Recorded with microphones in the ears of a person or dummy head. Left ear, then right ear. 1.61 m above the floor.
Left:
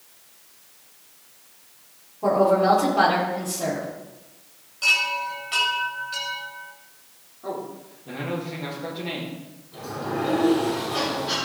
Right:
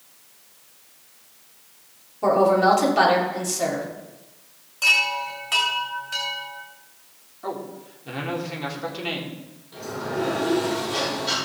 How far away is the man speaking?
About 3.5 m.